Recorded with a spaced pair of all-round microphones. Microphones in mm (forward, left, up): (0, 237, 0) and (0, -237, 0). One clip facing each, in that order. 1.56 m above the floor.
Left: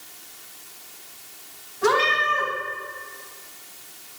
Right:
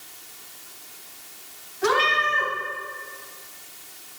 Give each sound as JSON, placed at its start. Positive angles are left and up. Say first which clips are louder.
{"t": 1.8, "sound": "a cat meowing", "louder": "left 2 dB", "side_deg": 65, "distance_m": 4.5}